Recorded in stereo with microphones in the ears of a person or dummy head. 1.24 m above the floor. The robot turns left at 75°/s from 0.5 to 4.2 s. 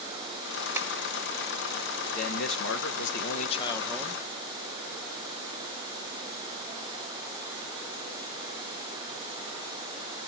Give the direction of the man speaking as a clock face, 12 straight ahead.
7 o'clock.